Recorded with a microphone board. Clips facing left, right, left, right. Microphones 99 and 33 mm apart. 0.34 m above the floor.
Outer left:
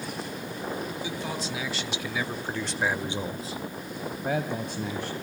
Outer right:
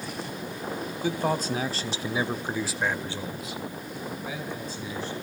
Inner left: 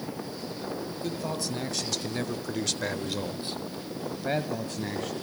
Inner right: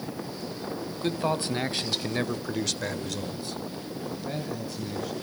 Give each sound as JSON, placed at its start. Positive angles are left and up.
{"t": 1.0, "sound": "a man speaking", "side_deg": -50, "distance_m": 2.0}